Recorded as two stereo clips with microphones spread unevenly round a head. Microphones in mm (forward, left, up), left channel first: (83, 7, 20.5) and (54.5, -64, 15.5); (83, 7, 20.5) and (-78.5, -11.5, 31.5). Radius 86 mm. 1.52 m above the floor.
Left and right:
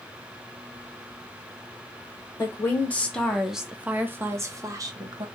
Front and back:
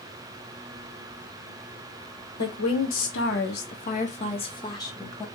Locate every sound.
2.4 s a woman speaking: 10° left, 1.0 m; by 5.2 s 70° right, 1.3 m